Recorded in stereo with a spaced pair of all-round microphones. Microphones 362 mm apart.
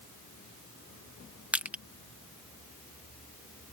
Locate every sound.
1.5 s crushing: 5° right (ahead or behind)